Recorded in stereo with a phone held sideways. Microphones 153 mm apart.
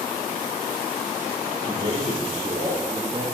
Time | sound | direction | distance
1.6 | a man speaking | 60° right (ahead or behind) | 4 m